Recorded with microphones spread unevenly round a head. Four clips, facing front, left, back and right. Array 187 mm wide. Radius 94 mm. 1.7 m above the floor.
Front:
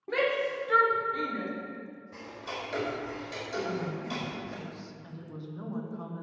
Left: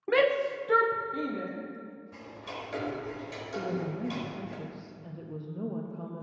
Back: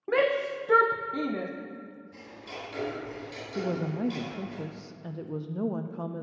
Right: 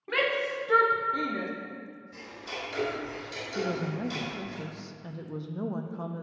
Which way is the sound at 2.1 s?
30° left.